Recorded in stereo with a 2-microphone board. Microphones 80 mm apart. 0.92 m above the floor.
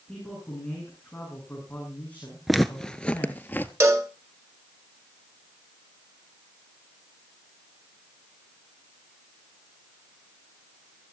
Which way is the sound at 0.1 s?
15° left (ahead or behind).